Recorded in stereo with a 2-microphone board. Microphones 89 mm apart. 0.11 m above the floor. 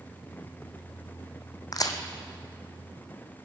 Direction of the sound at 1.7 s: 40° left (ahead or behind).